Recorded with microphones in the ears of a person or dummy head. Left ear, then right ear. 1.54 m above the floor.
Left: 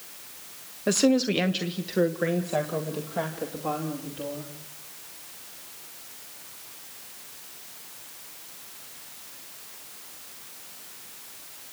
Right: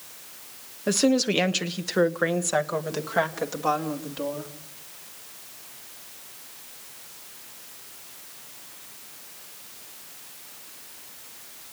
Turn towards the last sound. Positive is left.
turn(degrees=-60)  # may be behind; listen again after turning